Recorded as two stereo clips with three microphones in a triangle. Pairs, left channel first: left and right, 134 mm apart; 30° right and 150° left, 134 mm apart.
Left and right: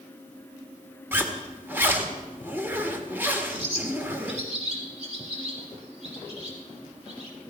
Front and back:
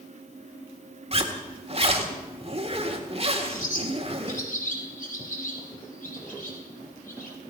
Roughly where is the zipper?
Behind.